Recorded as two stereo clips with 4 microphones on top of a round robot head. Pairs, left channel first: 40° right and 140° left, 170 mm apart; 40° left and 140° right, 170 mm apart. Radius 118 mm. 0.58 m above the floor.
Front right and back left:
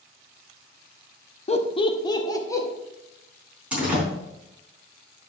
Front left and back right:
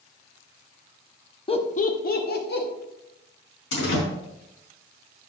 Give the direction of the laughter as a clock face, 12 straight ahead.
12 o'clock.